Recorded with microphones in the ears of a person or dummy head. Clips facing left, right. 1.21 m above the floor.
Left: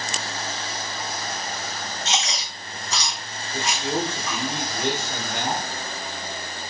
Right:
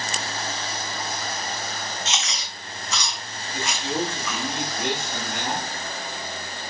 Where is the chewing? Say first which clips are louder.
Left 3 dB; 35° left (ahead or behind), 1.4 m.